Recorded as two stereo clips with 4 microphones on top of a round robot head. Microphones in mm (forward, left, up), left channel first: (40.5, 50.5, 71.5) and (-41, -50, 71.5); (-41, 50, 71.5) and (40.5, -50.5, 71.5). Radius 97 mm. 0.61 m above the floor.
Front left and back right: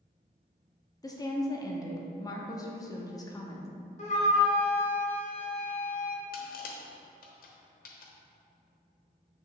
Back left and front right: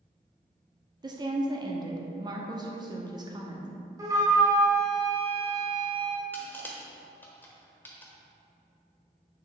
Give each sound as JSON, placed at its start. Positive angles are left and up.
{"t": 1.0, "sound": "a woman speaking", "azimuth_deg": -5, "distance_m": 1.0}
{"t": 4.0, "sound": "a flute", "azimuth_deg": 15, "distance_m": 1.5}
{"t": 6.3, "sound": "crushing", "azimuth_deg": 50, "distance_m": 1.0}